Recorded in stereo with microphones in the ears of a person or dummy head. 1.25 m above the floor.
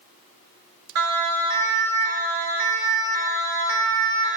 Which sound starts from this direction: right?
A siren, at 0.9 s.